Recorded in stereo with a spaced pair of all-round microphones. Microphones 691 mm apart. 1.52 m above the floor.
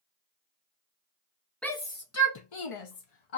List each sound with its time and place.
1.6 s a shout: centre (ahead or behind), 0.8 m; by 3.4 s 70° left (ahead or behind), 0.9 m